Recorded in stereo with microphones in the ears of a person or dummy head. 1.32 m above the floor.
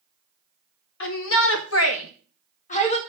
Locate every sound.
1.0 s a shout: 75° left (ahead or behind), 2.5 m; by 3.0 s 25° left (ahead or behind), 1.8 m